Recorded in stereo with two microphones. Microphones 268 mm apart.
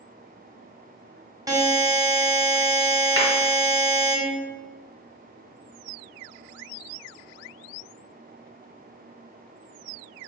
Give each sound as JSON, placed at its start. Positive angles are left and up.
{"t": 1.5, "sound": "a buzzer", "side_deg": -15, "distance_m": 1.1}
{"t": 3.2, "sound": "a clap", "side_deg": 55, "distance_m": 1.8}